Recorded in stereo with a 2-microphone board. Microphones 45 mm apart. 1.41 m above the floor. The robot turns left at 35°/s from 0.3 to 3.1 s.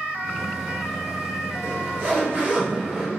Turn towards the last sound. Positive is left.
turn(degrees=-15)  # may be behind; listen again after turning